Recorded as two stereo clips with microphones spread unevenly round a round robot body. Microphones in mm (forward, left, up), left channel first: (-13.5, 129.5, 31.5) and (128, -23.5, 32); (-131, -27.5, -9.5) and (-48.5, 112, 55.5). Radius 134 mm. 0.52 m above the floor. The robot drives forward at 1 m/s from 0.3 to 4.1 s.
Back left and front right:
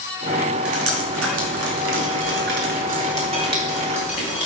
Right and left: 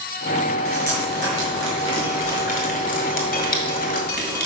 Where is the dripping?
40° right, 2.5 m; by 4.5 s 130° right, 2.5 m.